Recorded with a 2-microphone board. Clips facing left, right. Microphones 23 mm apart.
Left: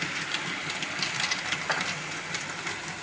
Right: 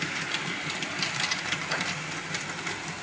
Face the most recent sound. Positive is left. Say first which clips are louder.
# left 3 dB
turn(degrees=75)  # may be behind; listen again after turning